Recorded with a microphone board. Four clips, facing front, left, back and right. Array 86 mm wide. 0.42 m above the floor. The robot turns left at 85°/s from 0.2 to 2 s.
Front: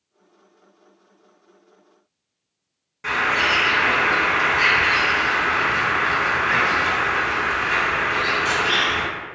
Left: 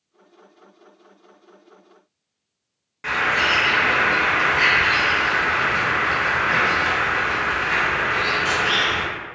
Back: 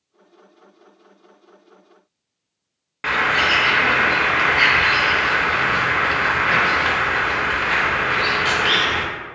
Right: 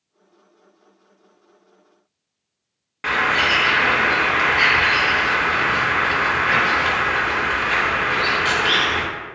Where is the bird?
145° right, 0.6 m.